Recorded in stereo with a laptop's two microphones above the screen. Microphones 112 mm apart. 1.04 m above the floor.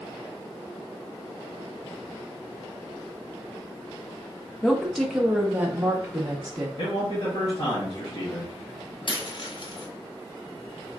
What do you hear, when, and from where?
4.6 s a woman speaking: 10° left (ahead or behind), 0.8 m; by 6.7 s 35° right (ahead or behind), 1.1 m
6.8 s a man speaking: 45° left (ahead or behind), 1.4 m
9.1 s a dropped coin: 50° left (ahead or behind), 0.7 m